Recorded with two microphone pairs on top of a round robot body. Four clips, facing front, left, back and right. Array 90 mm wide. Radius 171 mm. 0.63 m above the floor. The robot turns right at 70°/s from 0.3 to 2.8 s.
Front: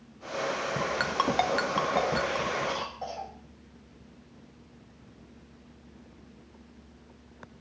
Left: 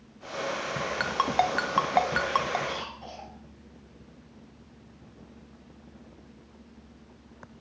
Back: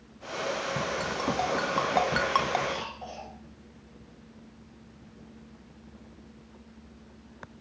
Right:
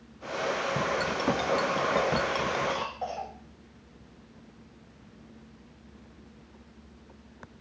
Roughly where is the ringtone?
Ahead left.